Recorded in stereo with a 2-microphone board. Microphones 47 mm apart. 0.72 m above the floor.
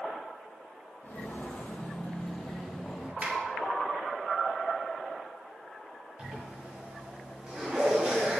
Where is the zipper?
20° right (ahead or behind), 2 m.